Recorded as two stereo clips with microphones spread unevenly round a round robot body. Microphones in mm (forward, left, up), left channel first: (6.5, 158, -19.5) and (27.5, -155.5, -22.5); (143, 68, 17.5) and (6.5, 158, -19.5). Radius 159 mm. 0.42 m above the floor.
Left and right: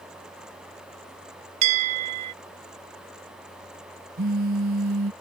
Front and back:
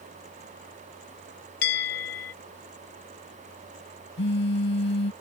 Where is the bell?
55° right.